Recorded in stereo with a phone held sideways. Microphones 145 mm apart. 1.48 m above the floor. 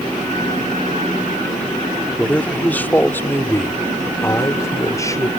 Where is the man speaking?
10° left (ahead or behind); by 5.3 s 25° left (ahead or behind).